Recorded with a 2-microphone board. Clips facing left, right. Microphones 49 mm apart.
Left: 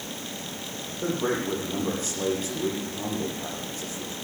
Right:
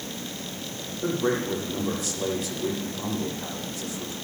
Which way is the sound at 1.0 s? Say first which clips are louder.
Right 1 dB; 45° left (ahead or behind).